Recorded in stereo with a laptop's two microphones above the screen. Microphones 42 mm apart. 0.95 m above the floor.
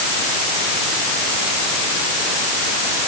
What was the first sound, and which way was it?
Only background noise.